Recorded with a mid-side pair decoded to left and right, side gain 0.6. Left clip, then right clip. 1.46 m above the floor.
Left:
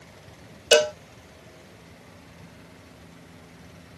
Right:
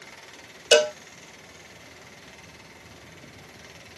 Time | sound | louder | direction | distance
0.7 | a cowbell | even | 5° right | ?